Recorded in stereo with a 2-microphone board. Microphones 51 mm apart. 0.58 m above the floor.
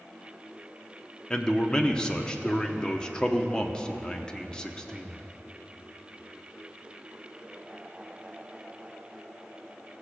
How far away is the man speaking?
About 0.7 m.